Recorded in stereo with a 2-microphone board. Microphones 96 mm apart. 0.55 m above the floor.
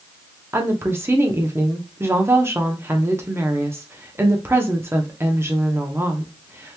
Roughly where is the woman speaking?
Right.